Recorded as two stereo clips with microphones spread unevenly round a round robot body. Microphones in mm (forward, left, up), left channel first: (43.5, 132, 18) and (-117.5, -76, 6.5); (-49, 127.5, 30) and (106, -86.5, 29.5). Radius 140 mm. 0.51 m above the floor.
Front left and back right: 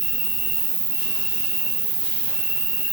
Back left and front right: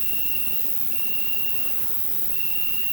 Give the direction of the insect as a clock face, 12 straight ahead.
3 o'clock.